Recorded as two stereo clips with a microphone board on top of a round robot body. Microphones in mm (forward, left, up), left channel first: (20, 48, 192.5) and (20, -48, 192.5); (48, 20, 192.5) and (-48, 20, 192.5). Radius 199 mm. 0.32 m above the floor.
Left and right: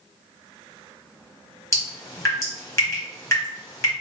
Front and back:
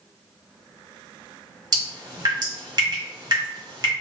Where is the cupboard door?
I don't hear a cupboard door.